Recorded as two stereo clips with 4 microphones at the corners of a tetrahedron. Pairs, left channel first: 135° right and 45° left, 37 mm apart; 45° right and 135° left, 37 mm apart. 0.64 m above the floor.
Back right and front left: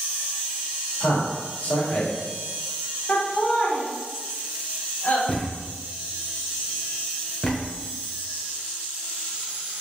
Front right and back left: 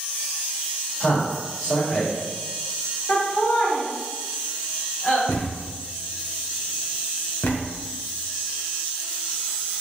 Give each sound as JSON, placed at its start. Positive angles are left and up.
{"t": 1.0, "sound": "a man speaking", "azimuth_deg": -110, "distance_m": 2.0}
{"t": 3.1, "sound": "laughter", "azimuth_deg": -100, "distance_m": 1.8}
{"t": 5.3, "sound": "a thud", "azimuth_deg": -65, "distance_m": 1.2}